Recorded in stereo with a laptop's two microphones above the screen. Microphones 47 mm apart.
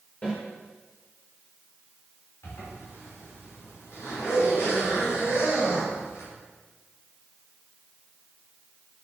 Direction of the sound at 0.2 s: 25° left (ahead or behind).